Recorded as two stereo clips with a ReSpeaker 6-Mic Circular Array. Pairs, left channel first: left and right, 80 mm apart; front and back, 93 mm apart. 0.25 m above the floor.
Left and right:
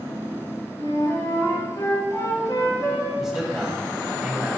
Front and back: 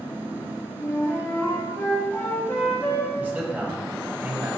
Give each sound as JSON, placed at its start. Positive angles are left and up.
{"t": 0.8, "sound": "a flute", "azimuth_deg": 60, "distance_m": 2.0}
{"t": 3.2, "sound": "a man speaking", "azimuth_deg": -165, "distance_m": 1.5}